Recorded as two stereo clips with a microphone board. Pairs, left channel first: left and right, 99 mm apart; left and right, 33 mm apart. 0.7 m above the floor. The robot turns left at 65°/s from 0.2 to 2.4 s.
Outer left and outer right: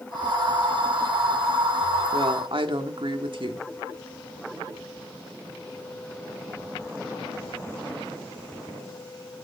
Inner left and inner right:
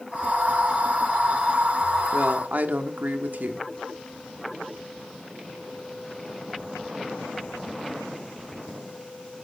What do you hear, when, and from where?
2.1 s a woman speaking: 65° right (ahead or behind), 1.3 m; by 3.7 s 60° right (ahead or behind), 1.3 m